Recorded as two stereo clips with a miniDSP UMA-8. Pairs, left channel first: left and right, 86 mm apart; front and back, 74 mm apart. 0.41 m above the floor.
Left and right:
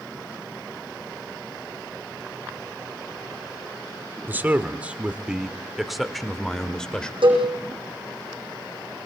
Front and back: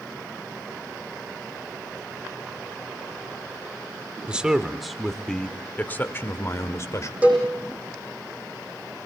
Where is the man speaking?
120° right, 1.3 m; by 7.1 s 15° left, 1.7 m.